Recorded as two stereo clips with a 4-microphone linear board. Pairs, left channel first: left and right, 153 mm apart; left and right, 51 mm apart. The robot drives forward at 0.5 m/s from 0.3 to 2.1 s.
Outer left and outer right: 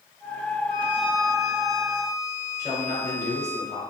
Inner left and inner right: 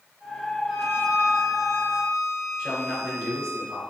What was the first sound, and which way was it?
A violin, 45° left (ahead or behind).